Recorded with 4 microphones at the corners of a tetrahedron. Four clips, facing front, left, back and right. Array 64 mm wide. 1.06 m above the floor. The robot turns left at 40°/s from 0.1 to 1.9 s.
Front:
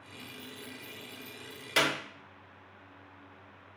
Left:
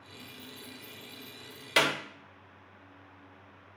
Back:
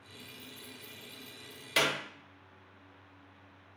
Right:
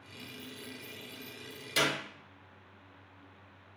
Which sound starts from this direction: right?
Keys jangling, at 0.2 s.